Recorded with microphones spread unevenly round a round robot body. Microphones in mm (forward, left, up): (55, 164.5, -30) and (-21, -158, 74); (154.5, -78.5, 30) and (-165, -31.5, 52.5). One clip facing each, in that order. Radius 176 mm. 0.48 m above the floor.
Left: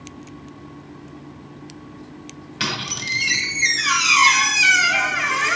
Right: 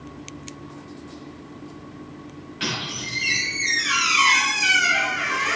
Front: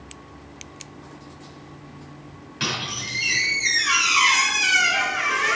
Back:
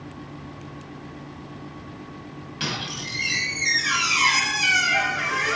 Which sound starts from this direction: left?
A squeak, at 2.6 s.